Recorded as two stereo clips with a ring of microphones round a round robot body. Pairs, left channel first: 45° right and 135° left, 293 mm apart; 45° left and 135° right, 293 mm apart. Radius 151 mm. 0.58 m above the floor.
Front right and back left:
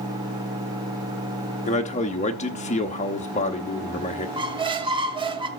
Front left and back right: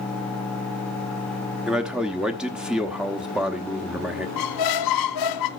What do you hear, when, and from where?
1.7 s a man speaking: 50° right, 1.0 m
4.4 s a squeak: 60° left, 1.0 m